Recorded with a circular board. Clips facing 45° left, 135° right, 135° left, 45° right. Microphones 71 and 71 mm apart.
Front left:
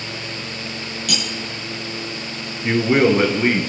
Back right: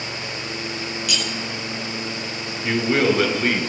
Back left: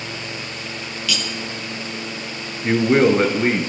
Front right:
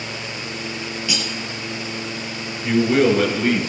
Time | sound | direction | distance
1.1 | cutlery clinking | 20° left | 1.8 m
2.6 | a man speaking | 110° left | 1.3 m